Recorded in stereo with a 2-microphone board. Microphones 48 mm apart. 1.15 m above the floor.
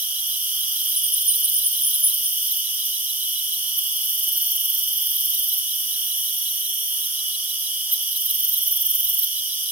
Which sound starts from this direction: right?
An insect, at 0.0 s.